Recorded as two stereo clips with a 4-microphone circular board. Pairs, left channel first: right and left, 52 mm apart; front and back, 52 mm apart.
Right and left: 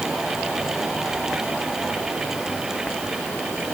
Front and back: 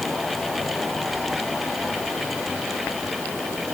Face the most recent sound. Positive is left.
No sound to turn to.